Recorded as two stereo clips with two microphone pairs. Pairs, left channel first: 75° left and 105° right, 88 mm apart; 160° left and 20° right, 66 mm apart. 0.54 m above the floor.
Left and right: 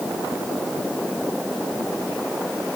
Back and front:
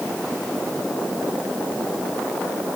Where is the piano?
No piano in this recording.